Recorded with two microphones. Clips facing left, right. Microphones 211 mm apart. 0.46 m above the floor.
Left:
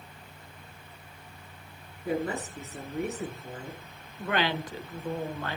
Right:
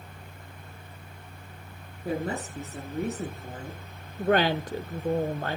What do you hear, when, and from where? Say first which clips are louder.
2.0 s a woman speaking: even; 35° right (ahead or behind), 7.5 m
4.2 s a woman speaking: right 6 dB; 45° right (ahead or behind), 1.3 m